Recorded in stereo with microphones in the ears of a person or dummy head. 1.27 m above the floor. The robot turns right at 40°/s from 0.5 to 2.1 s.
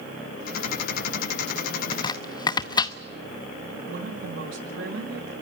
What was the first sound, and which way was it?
Chopping, 35° left (ahead or behind).